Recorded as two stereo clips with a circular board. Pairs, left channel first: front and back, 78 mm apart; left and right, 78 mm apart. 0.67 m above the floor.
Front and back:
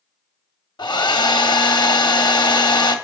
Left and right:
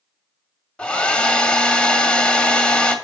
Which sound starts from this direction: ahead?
A hair dryer, at 0.8 s.